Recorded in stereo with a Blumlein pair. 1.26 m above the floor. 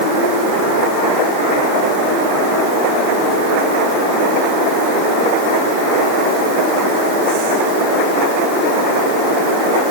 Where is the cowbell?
No cowbell in this recording.